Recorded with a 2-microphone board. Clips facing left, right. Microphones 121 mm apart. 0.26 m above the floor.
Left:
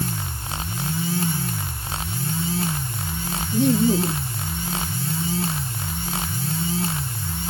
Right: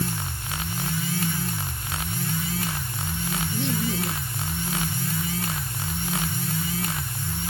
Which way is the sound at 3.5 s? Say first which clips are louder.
Left 11 dB; 50° left (ahead or behind).